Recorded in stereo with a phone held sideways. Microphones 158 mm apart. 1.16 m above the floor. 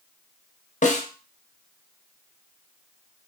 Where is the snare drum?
50° left (ahead or behind), 0.5 m.